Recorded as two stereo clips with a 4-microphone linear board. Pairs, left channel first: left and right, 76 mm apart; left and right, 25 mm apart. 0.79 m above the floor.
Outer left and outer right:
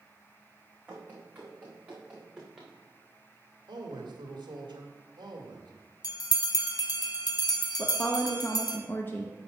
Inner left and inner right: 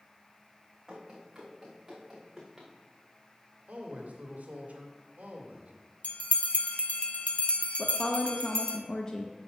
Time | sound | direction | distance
0.9 | running footsteps | 25° right (ahead or behind) | 4 m
3.7 | a man speaking | 75° right (ahead or behind) | 1.8 m
6.0 | a bell | 55° left (ahead or behind) | 0.7 m
7.8 | a woman speaking | 25° left (ahead or behind) | 0.8 m